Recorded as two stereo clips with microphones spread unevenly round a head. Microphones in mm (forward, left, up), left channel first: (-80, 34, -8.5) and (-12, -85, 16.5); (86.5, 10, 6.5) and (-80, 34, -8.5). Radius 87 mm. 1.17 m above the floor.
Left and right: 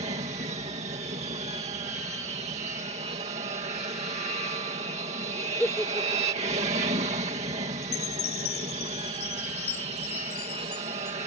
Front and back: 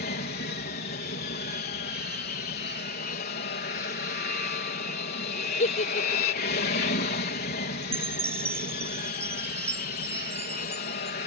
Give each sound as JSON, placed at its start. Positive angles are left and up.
{"t": 0.0, "sound": "an aircraft", "azimuth_deg": -15}
{"t": 5.6, "sound": "a giggle", "azimuth_deg": 35}
{"t": 7.8, "sound": "a chime", "azimuth_deg": 95}